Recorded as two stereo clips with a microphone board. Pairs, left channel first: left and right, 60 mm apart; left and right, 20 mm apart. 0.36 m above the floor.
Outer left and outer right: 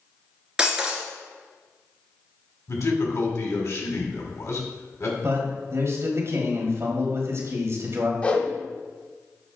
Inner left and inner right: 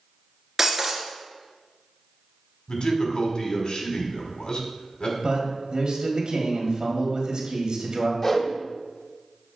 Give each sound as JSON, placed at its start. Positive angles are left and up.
{"t": 0.6, "sound": "breaking glass", "side_deg": -15, "distance_m": 1.4}
{"t": 2.7, "sound": "a man speaking", "side_deg": 60, "distance_m": 2.0}
{"t": 5.2, "sound": "a man speaking", "side_deg": -50, "distance_m": 1.7}
{"t": 8.2, "sound": "a whoosh", "side_deg": 25, "distance_m": 1.1}